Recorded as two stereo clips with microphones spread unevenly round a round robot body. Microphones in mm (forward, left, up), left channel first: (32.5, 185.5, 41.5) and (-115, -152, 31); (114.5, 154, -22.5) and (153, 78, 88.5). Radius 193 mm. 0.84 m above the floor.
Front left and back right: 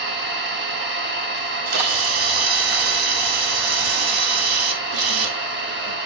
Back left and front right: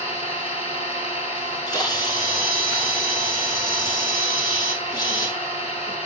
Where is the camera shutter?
145° right, 1.4 m.